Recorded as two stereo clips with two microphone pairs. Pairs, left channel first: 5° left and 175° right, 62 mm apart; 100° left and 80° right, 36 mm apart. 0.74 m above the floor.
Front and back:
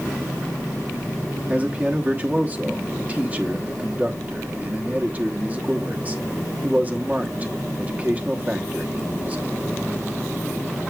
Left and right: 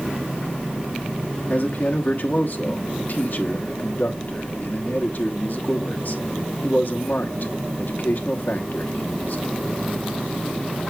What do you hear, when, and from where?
1.5 s a man speaking: 120° left, 1.1 m